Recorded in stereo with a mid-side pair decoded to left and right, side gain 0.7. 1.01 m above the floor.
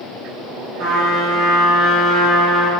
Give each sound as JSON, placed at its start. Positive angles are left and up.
{"t": 0.8, "sound": "a trumpet", "azimuth_deg": -55, "distance_m": 1.8}